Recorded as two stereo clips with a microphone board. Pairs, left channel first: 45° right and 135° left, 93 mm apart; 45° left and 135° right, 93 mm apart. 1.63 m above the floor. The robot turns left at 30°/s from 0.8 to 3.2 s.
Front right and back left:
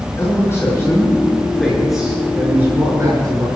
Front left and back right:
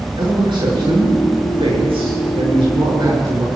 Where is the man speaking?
105° right, 6.5 m; by 3.5 s straight behind, 6.5 m.